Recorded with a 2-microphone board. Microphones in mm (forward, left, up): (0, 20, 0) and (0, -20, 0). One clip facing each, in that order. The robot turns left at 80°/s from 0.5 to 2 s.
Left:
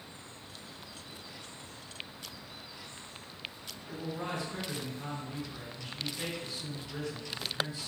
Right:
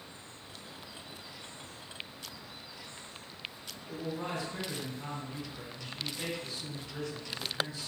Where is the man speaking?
10° left (ahead or behind), 1.5 m.